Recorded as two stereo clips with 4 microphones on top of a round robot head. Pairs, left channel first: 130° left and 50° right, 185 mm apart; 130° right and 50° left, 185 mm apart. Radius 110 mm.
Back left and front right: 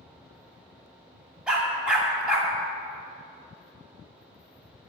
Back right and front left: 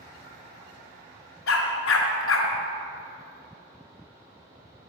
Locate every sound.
1.5 s a dog barking: 135° right, 1.6 m